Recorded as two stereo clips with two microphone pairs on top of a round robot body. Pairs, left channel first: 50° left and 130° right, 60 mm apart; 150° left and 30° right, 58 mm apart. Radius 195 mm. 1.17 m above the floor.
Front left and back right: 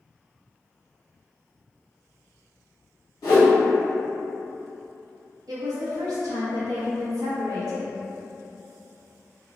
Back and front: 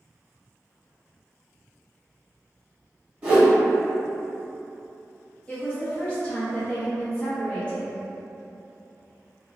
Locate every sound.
3.2 s a whoosh: 30° left, 1.5 m
5.5 s a woman speaking: 140° right, 0.7 m